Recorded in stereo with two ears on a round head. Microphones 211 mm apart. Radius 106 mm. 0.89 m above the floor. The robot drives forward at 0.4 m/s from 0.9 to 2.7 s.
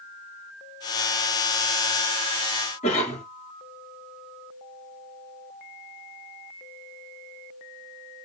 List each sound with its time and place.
2.8 s a cough: 25° left (ahead or behind), 1.7 m